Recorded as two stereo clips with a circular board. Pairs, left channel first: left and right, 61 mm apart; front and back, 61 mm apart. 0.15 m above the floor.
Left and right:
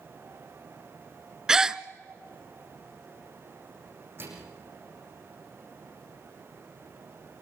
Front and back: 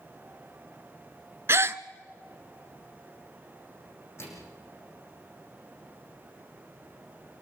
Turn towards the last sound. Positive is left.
turn(degrees=-45)